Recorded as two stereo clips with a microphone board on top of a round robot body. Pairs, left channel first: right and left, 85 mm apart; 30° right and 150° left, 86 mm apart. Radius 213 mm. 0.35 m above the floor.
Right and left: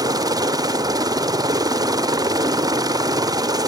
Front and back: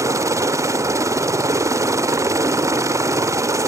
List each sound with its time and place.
0.0 s a helicopter: 110° left